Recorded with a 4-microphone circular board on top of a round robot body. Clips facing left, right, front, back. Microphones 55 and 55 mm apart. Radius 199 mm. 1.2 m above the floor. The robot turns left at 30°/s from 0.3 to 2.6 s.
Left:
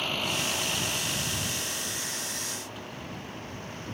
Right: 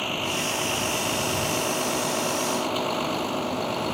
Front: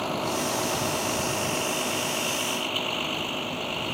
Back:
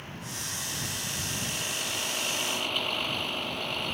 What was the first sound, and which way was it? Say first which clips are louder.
A vehicle: right 3 dB, front 13 dB; 15° right.